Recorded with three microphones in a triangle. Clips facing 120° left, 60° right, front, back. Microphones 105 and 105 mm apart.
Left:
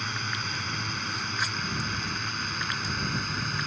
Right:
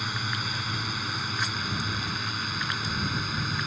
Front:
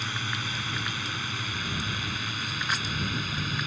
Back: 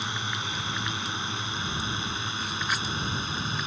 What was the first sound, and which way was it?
A drone, 135° right.